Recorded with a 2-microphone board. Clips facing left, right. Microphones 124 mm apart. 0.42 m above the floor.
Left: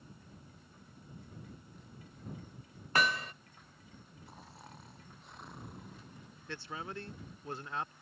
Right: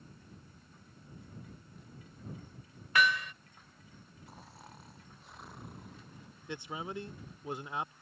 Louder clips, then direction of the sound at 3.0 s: Right 2 dB; 35° left (ahead or behind).